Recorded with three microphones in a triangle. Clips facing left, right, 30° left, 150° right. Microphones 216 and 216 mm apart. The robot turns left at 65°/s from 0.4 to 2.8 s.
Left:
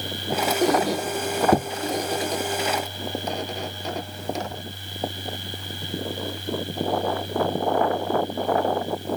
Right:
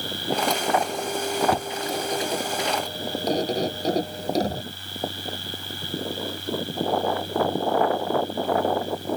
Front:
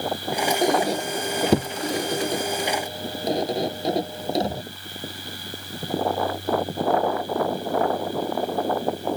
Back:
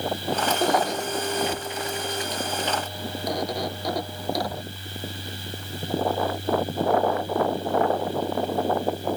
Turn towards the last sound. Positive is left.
turn(degrees=-35)